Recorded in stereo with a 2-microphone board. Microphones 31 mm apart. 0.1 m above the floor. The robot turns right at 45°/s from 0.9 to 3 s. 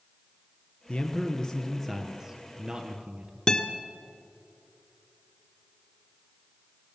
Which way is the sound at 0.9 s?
130° left.